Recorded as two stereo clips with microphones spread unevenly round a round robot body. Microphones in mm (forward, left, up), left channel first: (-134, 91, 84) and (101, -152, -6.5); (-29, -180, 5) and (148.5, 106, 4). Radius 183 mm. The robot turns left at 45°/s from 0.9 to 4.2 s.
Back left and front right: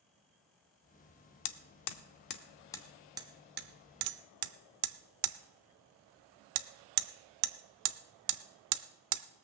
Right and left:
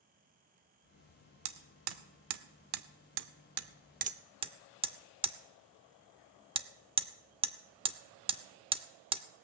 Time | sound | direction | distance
1.4 | hammering | 105° left | 0.6 m